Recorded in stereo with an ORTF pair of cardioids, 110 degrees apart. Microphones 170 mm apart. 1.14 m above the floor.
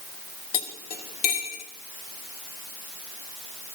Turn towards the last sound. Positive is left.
turn(degrees=60)